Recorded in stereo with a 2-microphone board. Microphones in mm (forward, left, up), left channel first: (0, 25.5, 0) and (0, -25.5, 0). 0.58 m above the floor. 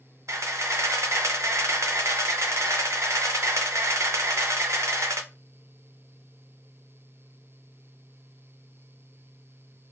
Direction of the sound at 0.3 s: 70° right (ahead or behind).